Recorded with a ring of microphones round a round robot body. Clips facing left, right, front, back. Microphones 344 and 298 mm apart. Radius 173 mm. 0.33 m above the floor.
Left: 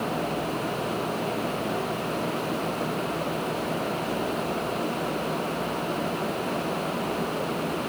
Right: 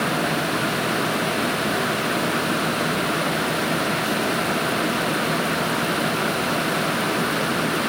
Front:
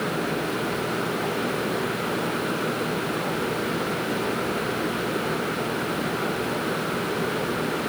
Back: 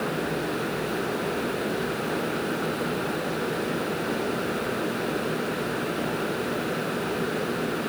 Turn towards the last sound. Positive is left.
No sound to turn to.